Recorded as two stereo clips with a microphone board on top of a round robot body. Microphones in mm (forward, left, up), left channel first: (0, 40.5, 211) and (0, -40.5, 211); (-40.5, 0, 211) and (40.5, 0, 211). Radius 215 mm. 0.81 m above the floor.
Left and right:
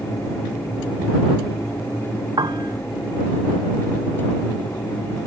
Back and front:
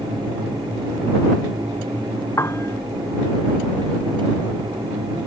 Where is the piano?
120° right.